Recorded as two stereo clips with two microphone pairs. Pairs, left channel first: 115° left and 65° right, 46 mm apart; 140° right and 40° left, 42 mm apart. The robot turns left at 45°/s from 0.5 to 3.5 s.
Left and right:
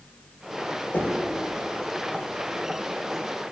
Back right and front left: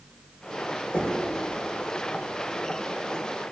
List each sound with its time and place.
0.9 s knocking: 160° left, 2.5 m; by 1.3 s 145° left, 2.5 m